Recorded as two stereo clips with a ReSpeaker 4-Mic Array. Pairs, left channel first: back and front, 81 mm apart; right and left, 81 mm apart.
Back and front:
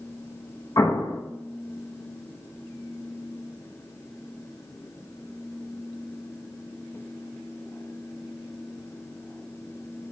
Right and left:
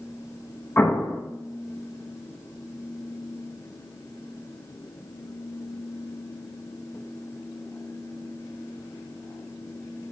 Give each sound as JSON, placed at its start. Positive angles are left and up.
{"t": 0.8, "sound": "an explosion", "azimuth_deg": -150, "distance_m": 0.6}